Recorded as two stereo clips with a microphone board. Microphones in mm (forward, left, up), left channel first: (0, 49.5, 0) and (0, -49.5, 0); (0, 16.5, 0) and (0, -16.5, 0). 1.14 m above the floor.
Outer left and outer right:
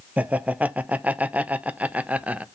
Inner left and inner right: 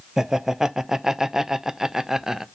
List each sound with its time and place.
0.2 s laughter: 15° right (ahead or behind), 0.6 m